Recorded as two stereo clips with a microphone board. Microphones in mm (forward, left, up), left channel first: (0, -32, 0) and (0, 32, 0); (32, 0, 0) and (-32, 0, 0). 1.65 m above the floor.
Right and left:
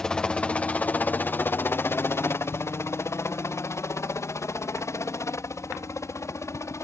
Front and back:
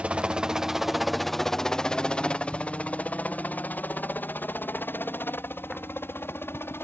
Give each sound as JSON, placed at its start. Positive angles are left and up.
{"t": 0.0, "sound": "a helicopter", "azimuth_deg": -150}